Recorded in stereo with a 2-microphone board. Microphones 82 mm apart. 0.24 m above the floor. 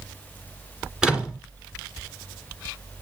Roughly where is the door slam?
Centre.